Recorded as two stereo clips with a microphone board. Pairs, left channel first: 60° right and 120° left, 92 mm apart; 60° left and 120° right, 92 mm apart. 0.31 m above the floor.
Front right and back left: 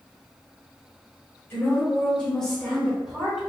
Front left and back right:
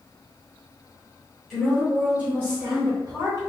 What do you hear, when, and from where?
1.5 s a woman speaking: 25° right, 1.5 m; by 3.4 s 155° right, 2 m